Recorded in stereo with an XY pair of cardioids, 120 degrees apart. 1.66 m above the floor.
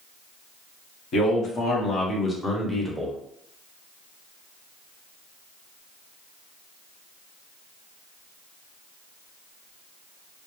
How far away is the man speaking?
About 1.2 m.